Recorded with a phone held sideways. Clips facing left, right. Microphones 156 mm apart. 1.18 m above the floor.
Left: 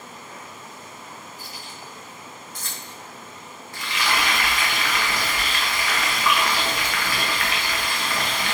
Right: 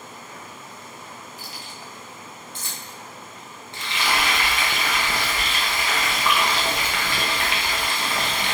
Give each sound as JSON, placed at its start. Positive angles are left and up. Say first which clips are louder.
{"t": 1.4, "sound": "keys jangling", "louder": "even", "side_deg": -85, "distance_m": 1.3}
{"t": 3.7, "sound": "frying", "louder": "even", "side_deg": -25, "distance_m": 1.0}